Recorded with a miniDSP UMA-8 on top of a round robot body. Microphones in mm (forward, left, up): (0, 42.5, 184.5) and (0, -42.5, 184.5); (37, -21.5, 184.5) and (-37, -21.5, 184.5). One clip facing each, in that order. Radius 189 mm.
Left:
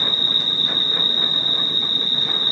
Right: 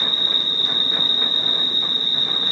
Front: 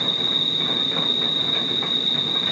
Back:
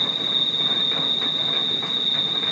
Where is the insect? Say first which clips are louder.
Left 1 dB, front 2 dB; 145° right, 1.8 m.